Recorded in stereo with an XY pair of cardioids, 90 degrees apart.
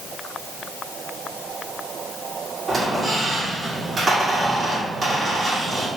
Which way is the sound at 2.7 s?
40° right.